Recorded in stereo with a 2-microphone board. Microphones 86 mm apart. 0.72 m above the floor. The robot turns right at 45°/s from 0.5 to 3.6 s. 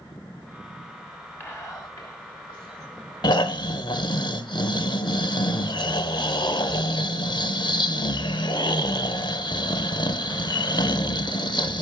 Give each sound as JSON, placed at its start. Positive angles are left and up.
{"t": 1.4, "sound": "whispering", "side_deg": 25, "distance_m": 2.5}
{"t": 3.2, "sound": "snoring", "side_deg": 50, "distance_m": 0.6}